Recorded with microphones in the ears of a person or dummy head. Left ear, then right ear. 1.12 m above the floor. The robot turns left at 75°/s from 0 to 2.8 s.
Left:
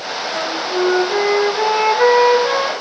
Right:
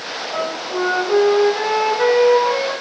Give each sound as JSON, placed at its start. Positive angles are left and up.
{"t": 0.3, "sound": "a flute", "azimuth_deg": -90, "distance_m": 4.5}